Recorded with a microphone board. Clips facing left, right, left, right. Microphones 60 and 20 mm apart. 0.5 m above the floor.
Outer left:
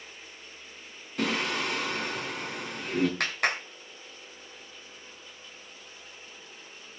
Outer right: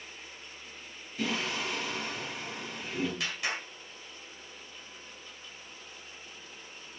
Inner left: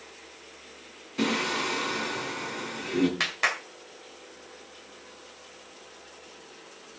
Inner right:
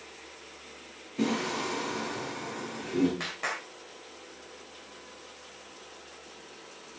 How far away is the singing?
About 4.5 m.